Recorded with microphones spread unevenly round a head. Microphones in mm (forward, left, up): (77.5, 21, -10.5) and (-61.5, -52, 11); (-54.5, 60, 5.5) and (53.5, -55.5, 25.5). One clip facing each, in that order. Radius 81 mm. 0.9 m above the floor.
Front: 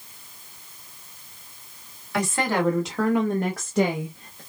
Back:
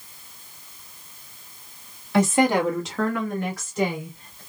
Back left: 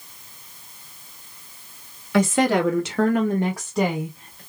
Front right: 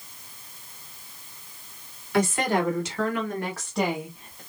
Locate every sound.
2.1 s a woman speaking: 135° left, 1.4 m; by 4.4 s 20° left, 1.3 m